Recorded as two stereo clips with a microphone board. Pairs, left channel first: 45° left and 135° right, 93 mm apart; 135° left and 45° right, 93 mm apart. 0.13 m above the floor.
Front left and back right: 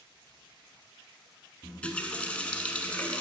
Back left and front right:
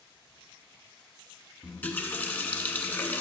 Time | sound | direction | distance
1.6 | a running tap | 100° left | 0.8 m